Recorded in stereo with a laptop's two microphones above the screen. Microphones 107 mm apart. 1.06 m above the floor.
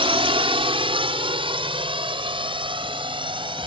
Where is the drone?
60° right (ahead or behind); by 3.7 s 50° right (ahead or behind).